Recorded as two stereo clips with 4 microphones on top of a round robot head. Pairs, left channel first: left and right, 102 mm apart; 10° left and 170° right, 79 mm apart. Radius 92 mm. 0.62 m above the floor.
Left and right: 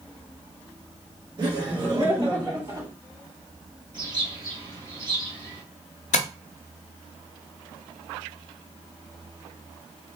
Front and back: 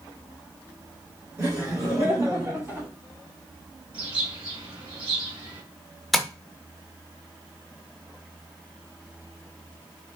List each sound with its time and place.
1.4 s laughter: 120° right, 2 m; by 2.9 s 130° right, 3 m
3.9 s a bird: 140° right, 2 m
6.1 s tapping: 100° left, 0.6 m